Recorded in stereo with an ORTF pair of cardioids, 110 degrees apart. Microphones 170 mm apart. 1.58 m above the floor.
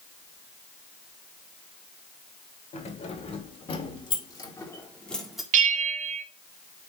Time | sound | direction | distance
2.7 | keys jangling | 45° left | 3 m
5.5 | a bell | 50° right | 0.8 m